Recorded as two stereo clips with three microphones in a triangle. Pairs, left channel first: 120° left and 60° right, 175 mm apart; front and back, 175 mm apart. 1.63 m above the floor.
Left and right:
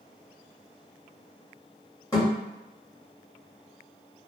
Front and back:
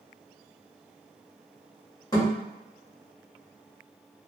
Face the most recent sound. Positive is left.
turn(degrees=60)